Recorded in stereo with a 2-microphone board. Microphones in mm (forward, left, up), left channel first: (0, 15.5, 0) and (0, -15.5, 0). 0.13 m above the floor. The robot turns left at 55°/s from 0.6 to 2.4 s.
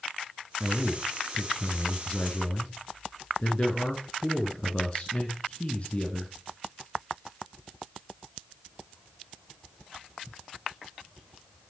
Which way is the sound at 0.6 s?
145° right.